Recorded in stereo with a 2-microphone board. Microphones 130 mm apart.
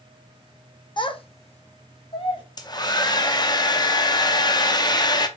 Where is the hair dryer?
30° left (ahead or behind), 0.5 m.